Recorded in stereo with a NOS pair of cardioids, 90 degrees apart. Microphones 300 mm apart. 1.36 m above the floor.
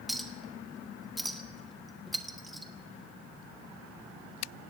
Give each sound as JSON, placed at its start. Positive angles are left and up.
{"t": 0.1, "sound": "a clink", "azimuth_deg": 0, "distance_m": 1.6}